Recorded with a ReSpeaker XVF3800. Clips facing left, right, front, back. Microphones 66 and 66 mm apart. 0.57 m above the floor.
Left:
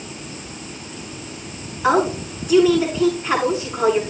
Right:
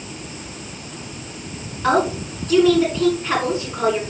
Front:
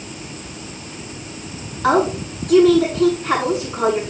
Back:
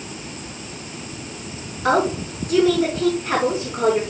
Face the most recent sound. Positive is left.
turn(degrees=5)